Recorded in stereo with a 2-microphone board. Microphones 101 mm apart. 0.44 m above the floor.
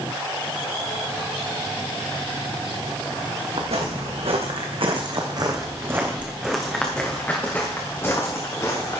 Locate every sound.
3.6 s footsteps: 80° right, 2.5 m; by 9.0 s 30° left (ahead or behind), 3.5 m